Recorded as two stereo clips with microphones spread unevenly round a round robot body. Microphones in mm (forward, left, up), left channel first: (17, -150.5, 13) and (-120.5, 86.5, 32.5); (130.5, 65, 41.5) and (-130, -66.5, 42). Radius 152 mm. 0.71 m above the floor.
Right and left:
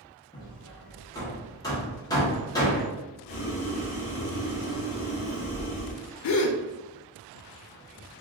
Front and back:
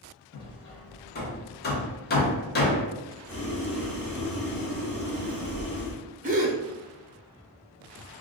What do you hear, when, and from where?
0.3 s hammering: straight ahead, 0.9 m
3.3 s boiling: 55° right, 1.5 m
6.2 s a gasp: 90° right, 0.5 m